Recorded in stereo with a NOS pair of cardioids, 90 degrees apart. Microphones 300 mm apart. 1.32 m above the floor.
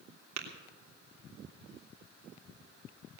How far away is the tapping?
About 3 m.